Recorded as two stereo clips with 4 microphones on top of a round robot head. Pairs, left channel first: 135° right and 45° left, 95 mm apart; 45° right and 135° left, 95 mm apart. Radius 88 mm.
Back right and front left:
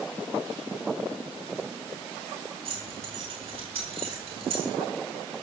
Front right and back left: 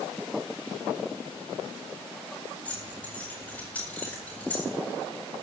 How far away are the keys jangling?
About 8 m.